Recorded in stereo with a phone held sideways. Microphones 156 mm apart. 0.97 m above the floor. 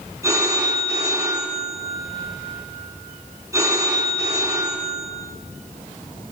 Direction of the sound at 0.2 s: 20° right (ahead or behind).